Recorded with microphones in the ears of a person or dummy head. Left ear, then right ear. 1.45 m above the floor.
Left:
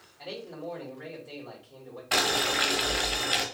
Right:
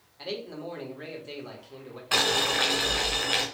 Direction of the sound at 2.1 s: 5° left (ahead or behind).